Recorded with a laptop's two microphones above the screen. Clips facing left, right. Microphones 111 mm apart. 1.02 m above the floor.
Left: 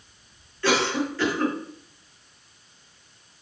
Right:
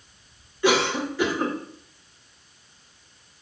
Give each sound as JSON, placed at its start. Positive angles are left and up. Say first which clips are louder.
{"t": 0.6, "sound": "a cough", "louder": "right 2 dB", "side_deg": -15, "distance_m": 0.7}